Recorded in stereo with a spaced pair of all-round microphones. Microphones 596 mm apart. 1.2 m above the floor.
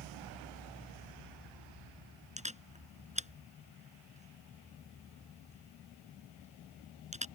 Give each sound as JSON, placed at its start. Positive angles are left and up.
{"t": 2.4, "sound": "a camera shutter", "side_deg": -10}